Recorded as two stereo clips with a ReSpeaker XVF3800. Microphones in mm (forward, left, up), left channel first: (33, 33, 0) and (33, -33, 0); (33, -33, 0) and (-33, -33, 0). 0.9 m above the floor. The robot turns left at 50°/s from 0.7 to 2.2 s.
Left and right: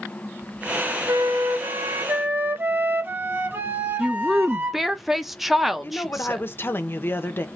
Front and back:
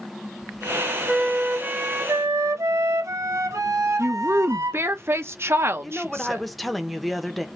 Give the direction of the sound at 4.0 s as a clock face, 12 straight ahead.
6 o'clock.